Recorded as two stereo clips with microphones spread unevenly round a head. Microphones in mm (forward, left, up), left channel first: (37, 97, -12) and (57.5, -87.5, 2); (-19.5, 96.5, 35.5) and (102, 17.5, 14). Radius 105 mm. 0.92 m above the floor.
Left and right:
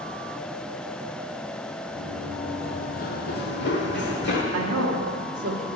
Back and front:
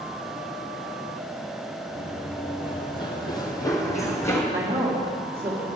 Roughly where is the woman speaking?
Right.